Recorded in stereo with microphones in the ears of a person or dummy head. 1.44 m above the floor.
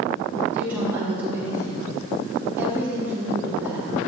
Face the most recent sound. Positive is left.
turn(degrees=-5)  # may be behind; listen again after turning